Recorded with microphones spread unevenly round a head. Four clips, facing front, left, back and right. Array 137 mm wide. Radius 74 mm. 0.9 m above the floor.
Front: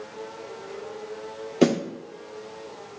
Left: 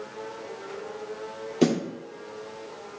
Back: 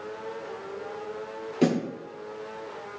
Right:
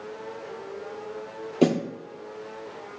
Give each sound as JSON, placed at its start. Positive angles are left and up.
{"t": 1.6, "sound": "a snare drum", "azimuth_deg": -35, "distance_m": 1.2}